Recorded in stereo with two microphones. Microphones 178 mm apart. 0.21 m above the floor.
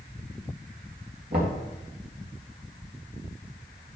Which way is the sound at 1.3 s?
65° right (ahead or behind).